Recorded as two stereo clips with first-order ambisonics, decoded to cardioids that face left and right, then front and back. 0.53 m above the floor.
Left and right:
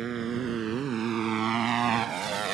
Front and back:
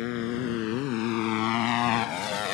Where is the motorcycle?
25° right; by 2.5 s 35° right.